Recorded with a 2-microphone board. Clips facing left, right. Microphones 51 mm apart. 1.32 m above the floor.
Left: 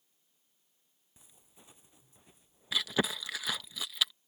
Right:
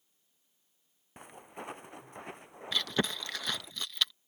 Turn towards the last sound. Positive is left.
turn(degrees=5)  # may be behind; listen again after turning